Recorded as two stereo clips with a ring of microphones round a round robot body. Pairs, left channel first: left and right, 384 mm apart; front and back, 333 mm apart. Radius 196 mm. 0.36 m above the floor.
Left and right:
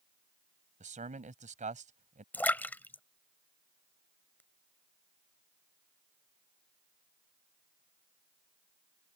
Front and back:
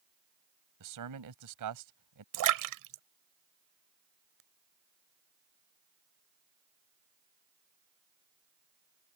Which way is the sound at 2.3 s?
175° left.